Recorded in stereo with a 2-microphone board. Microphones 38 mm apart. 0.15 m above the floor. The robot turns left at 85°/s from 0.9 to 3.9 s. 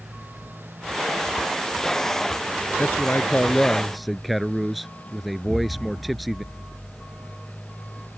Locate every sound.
0.0 s a motorcycle: 60° right; by 8.2 s 45° left
2.8 s a man speaking: 95° left; by 6.4 s straight ahead
5.4 s an explosion: 55° right (ahead or behind)